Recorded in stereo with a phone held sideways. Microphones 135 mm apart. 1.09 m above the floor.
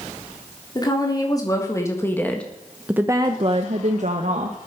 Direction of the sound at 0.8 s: 30° left (ahead or behind).